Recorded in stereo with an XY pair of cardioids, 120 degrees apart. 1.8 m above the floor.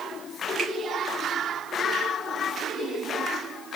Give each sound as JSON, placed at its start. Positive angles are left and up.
{"t": 0.6, "sound": "a finger snap", "azimuth_deg": -50, "distance_m": 1.8}